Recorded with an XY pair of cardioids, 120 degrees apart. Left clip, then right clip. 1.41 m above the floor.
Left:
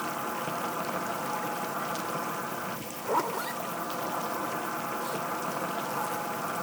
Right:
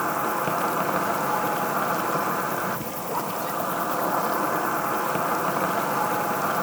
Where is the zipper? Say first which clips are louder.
Left 1 dB; 20° left.